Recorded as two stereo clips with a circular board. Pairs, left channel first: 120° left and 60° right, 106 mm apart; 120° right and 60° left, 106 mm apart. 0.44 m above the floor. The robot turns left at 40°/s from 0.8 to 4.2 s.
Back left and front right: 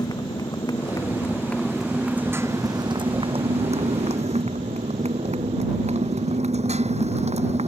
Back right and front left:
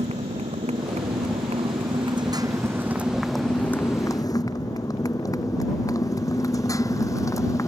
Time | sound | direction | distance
0.0 | a motorcycle | 65° left | ?